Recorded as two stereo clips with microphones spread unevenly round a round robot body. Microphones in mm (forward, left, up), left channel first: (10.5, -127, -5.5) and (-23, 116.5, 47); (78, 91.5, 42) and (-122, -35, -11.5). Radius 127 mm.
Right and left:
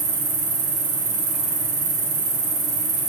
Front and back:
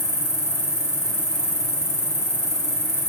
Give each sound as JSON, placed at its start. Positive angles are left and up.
{"t": 0.0, "sound": "an insect", "azimuth_deg": 110, "distance_m": 3.0}